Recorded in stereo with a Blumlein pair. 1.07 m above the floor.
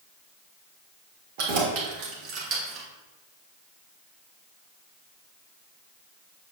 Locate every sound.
1.4 s keys jangling: 50° right, 2.5 m; by 2.9 s 30° right, 1.9 m